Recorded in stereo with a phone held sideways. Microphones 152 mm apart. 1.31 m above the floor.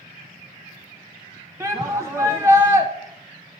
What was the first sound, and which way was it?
A shout, 20° right (ahead or behind).